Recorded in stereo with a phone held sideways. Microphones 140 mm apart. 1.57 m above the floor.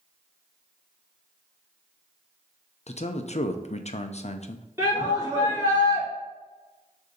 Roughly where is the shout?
Right.